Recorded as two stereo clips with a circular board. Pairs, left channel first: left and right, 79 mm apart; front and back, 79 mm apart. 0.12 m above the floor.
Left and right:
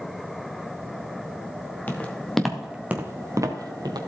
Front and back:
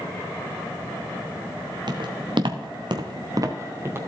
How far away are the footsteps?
About 1.7 m.